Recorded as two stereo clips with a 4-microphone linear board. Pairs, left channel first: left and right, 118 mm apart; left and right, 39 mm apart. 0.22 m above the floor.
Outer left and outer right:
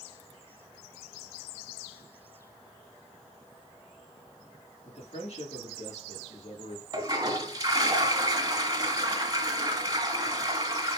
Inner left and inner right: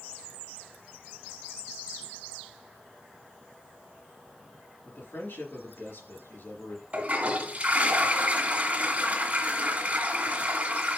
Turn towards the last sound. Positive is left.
turn(degrees=-35)  # may be behind; listen again after turning